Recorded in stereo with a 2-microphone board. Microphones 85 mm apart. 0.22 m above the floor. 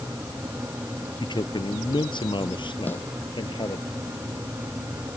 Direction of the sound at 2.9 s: 25° left (ahead or behind).